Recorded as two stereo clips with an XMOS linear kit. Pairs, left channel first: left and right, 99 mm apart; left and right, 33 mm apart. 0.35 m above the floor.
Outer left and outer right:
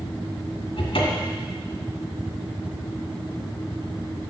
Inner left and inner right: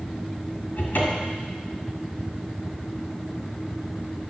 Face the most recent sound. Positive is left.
turn(degrees=65)  # may be behind; listen again after turning